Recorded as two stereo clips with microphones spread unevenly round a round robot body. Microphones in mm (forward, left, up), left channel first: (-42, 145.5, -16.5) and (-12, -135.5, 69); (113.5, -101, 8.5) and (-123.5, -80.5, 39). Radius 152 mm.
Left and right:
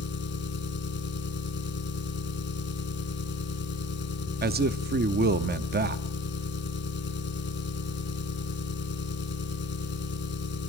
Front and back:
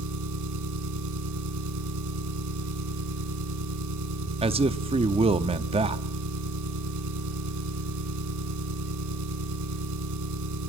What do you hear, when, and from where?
0.0 s an engine running: 150° left, 1.8 m
4.4 s a man speaking: 135° right, 0.7 m